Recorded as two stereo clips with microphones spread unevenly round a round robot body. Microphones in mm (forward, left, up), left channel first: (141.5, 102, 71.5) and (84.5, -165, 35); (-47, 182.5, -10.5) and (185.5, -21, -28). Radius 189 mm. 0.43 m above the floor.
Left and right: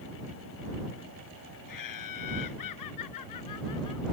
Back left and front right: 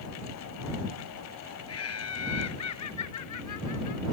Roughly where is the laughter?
Left.